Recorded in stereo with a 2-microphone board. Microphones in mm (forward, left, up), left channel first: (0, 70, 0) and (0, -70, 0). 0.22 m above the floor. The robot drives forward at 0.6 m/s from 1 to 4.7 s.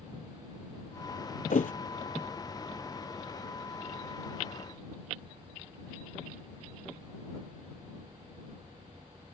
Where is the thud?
65° left (ahead or behind); by 1.7 s 75° left (ahead or behind).